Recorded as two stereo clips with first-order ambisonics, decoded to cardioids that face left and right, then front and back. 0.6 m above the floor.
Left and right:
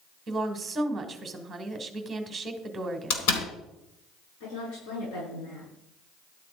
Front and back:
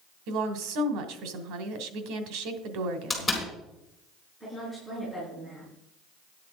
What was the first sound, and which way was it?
A woman speaking, 170° right.